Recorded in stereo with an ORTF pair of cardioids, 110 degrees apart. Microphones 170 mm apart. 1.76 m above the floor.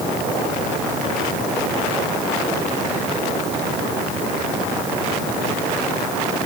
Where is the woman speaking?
I don't hear a woman speaking.